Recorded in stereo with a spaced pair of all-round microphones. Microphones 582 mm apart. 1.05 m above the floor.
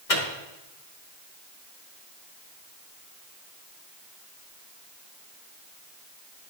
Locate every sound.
0.1 s a microwave: 75° left (ahead or behind), 1.1 m